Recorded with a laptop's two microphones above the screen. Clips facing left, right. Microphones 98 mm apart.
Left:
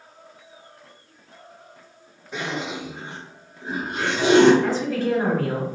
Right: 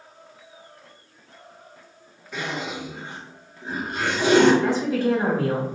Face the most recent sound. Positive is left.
turn(degrees=-15)  # may be behind; listen again after turning